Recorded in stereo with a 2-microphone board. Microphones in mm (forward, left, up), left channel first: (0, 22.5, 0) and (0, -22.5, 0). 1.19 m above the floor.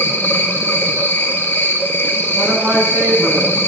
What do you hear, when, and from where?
0.0 s an insect: 50° left (ahead or behind), 2.5 m
2.4 s a woman speaking: 35° right (ahead or behind), 9.5 m